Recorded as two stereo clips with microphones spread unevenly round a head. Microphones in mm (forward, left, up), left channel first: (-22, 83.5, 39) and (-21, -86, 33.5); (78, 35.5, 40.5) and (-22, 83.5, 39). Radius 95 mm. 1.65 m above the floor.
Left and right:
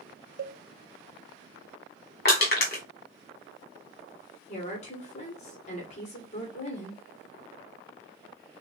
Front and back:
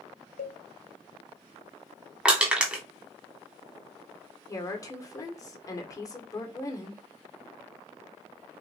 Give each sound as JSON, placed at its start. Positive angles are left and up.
{"t": 0.4, "sound": "a cowbell", "azimuth_deg": -45, "distance_m": 0.5}
{"t": 2.2, "sound": "crushing", "azimuth_deg": 75, "distance_m": 1.8}
{"t": 4.5, "sound": "a woman speaking", "azimuth_deg": 35, "distance_m": 1.7}